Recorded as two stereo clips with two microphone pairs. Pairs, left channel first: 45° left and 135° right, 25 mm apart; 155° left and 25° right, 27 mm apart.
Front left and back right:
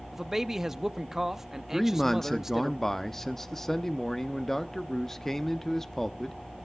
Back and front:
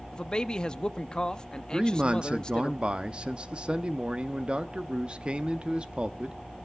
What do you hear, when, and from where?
0.1 s a man speaking: 165° left, 0.5 m
1.7 s a man speaking: 25° right, 0.6 m